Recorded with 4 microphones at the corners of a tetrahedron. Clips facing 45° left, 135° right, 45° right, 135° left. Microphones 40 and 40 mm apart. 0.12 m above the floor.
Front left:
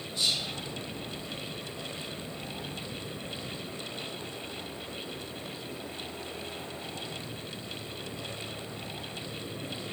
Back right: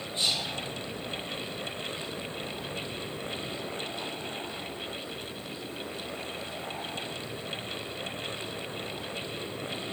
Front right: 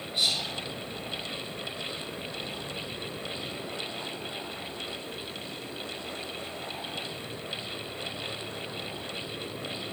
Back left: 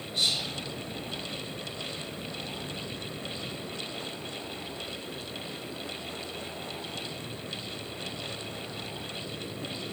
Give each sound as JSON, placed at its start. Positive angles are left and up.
{"t": 0.1, "sound": "whispering", "azimuth_deg": -110, "distance_m": 1.5}